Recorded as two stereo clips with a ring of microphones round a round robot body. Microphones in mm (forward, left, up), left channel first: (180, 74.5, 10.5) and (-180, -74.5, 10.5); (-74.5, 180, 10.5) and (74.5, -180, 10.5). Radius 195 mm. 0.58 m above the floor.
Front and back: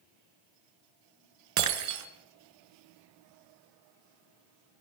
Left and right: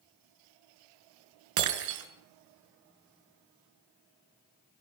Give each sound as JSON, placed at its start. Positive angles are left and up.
{"t": 1.6, "sound": "breaking glass", "azimuth_deg": -110, "distance_m": 5.0}